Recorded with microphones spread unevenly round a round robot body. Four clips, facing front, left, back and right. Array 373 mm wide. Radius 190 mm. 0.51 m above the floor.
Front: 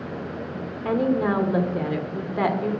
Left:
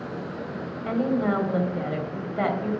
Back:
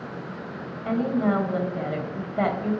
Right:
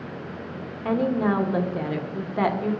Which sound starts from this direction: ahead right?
A woman speaking, at 0.8 s.